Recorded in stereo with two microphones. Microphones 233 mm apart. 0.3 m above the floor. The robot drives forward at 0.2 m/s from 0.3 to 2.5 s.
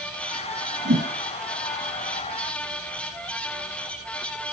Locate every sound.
0.8 s a whoosh: 55° right (ahead or behind), 1.6 m